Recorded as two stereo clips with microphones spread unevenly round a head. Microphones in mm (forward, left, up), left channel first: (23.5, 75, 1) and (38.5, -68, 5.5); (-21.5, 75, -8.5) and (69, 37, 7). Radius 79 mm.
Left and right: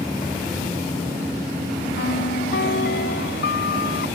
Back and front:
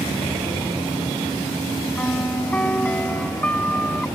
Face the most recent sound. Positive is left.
turn(degrees=80)